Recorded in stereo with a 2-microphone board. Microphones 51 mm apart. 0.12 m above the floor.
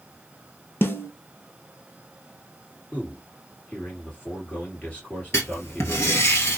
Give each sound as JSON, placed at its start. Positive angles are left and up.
{"t": 0.8, "sound": "a snare drum", "side_deg": 50, "distance_m": 0.9}
{"t": 2.9, "sound": "a man speaking", "side_deg": 30, "distance_m": 2.5}
{"t": 5.3, "sound": "writing", "side_deg": 60, "distance_m": 1.1}